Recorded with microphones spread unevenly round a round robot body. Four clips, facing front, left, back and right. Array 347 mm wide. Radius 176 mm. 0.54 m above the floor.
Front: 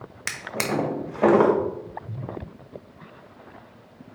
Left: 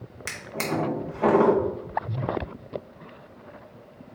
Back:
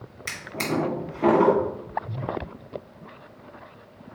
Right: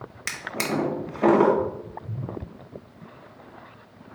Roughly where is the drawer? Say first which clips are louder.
Right 1 dB, front 1 dB; ahead right.